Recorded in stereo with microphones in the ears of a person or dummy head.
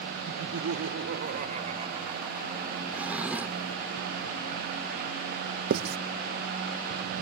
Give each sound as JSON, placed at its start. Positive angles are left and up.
{"t": 0.3, "sound": "laughter", "side_deg": -75}
{"t": 2.9, "sound": "a drawer", "side_deg": -5}
{"t": 5.7, "sound": "writing", "side_deg": -50}